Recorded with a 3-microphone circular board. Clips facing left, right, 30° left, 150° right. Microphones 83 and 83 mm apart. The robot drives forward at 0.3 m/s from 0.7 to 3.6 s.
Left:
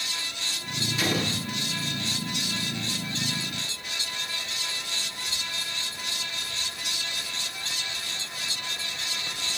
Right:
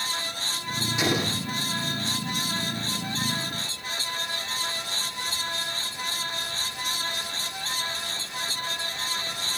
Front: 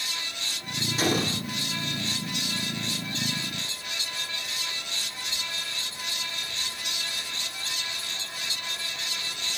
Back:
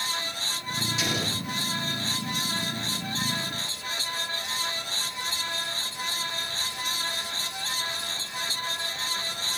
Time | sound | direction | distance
1.0 | an explosion | 15° right | 7.5 m